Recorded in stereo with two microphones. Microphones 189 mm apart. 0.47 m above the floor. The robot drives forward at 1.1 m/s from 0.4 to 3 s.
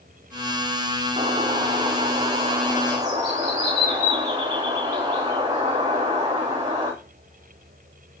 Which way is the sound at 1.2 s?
25° right (ahead or behind).